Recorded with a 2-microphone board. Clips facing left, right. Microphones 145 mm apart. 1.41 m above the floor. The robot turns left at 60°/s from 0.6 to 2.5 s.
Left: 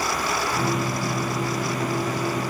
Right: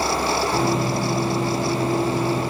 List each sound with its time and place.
Only background noise.